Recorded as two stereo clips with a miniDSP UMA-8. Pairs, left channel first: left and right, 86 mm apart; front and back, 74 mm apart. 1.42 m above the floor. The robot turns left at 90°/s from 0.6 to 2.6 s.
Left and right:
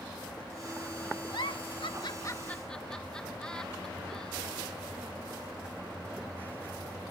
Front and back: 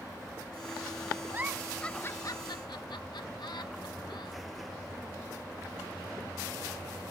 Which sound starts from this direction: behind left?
A giggle, at 1.3 s.